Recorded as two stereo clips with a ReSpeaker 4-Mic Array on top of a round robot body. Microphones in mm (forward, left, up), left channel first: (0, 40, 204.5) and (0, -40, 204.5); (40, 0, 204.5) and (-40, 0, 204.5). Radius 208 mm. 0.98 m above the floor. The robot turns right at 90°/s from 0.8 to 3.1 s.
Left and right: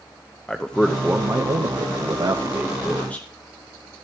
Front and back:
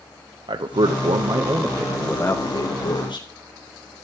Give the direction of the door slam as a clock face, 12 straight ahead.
No door slam in this recording.